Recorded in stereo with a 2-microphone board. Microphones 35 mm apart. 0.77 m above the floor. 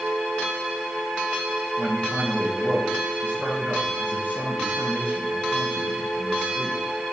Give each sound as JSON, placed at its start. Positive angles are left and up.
{"t": 1.8, "sound": "a man speaking", "side_deg": -60, "distance_m": 4.0}